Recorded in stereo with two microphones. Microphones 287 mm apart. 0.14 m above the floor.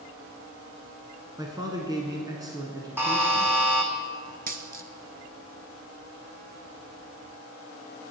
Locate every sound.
1.4 s a man speaking: 15° right (ahead or behind), 1.2 m
3.0 s a buzzer: 10° right (ahead or behind), 1.4 m
4.5 s a dropped coin: 30° right (ahead or behind), 0.7 m